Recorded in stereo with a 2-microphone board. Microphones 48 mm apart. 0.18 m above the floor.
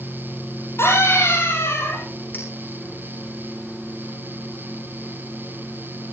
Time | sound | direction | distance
0.8 | a scream | 65° left (ahead or behind) | 5.5 m
2.3 | a clink | 40° left (ahead or behind) | 7 m